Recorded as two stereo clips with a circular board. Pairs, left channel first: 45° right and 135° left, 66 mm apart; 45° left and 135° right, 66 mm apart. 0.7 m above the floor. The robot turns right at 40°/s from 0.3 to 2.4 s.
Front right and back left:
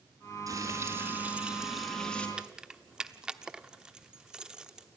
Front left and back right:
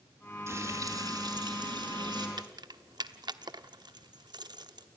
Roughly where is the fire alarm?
I don't hear a fire alarm.